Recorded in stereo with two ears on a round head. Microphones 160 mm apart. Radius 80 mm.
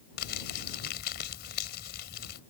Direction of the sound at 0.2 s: 60° left (ahead or behind).